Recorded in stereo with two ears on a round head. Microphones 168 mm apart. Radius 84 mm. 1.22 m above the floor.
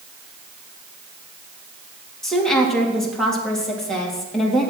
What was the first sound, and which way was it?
A woman speaking, centre (ahead or behind).